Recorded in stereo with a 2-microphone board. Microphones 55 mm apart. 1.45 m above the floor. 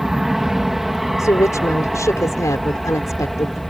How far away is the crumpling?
I don't hear crumpling.